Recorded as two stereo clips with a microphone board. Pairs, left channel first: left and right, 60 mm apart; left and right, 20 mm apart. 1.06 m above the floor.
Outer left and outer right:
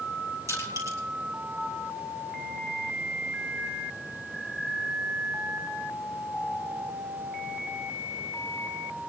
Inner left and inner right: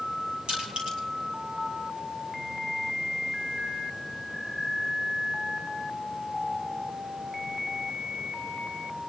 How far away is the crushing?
About 7.5 m.